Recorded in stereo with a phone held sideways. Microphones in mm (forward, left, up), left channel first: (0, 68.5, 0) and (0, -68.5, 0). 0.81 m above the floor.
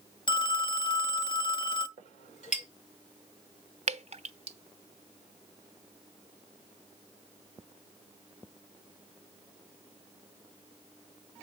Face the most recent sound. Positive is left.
turn(degrees=-50)  # may be behind; listen again after turning